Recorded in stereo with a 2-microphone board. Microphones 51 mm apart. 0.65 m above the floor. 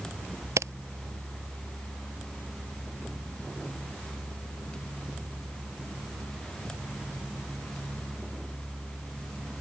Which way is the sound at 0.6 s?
80° right.